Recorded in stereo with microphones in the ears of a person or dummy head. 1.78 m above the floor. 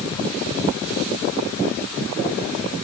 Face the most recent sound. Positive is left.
No sound to turn to.